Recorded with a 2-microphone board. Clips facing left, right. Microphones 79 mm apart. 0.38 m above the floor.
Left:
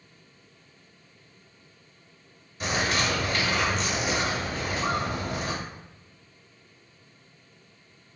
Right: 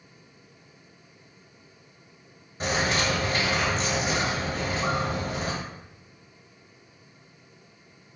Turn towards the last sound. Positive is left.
turn(degrees=-40)  # may be behind; listen again after turning